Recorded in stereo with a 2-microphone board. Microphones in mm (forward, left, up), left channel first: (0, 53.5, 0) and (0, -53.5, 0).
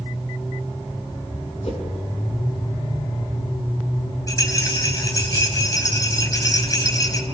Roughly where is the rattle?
Left.